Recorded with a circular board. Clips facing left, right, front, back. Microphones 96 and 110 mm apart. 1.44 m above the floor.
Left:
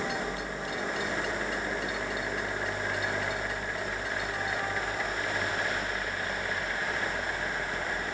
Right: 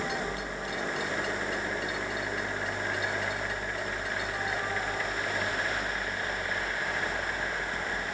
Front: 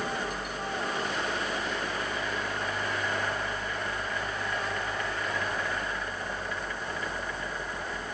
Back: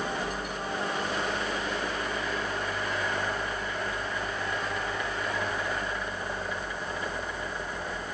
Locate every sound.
Only background noise.